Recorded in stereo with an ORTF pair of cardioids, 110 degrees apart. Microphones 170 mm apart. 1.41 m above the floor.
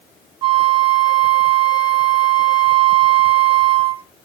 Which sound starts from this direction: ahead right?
A flute, at 0.4 s.